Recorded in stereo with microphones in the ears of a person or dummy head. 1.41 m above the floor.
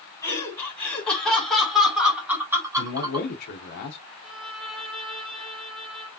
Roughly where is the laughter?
Centre.